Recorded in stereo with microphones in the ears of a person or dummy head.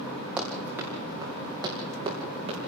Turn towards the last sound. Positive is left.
turn(degrees=-30)  # may be behind; listen again after turning